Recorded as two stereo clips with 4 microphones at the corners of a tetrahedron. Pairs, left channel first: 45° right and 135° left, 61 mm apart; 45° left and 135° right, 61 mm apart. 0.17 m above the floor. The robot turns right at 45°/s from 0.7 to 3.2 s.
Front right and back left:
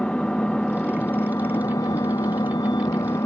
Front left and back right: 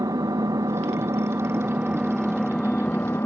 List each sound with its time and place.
0.0 s an engine running: 120° right; by 3.3 s 5° right